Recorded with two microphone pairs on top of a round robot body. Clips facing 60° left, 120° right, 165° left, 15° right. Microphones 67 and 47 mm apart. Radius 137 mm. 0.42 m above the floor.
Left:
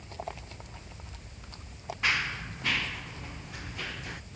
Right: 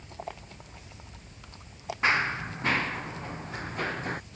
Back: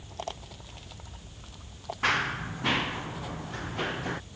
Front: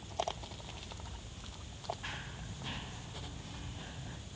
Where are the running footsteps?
Straight behind; by 4.2 s 175° right.